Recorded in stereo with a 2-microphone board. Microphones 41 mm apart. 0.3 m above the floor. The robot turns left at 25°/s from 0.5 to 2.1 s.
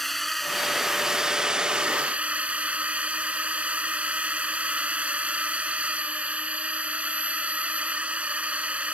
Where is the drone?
Straight ahead; by 8.9 s 40° right.